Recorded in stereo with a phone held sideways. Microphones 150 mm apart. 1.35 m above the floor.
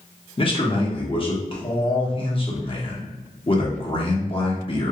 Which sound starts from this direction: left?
A man speaking, at 0.4 s.